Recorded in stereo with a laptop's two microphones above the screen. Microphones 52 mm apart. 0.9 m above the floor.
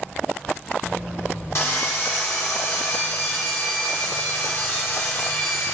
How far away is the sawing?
About 1.7 m.